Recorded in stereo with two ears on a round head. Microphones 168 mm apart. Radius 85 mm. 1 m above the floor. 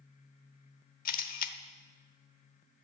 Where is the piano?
I don't hear a piano.